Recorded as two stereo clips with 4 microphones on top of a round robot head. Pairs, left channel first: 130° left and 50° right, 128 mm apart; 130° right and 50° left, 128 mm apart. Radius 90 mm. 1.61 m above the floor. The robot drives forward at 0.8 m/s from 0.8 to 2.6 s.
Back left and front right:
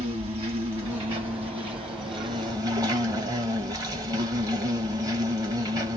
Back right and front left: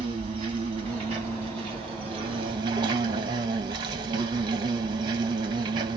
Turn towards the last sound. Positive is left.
turn(degrees=5)